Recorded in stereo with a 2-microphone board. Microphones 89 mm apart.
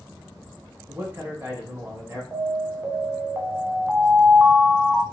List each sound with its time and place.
0.9 s a man speaking: 25° right (ahead or behind), 1.4 m
2.3 s an alarm: 25° right (ahead or behind), 0.8 m